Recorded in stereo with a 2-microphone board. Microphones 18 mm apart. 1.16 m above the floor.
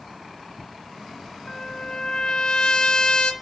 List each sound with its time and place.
1.5 s a trumpet: 50° left (ahead or behind), 0.9 m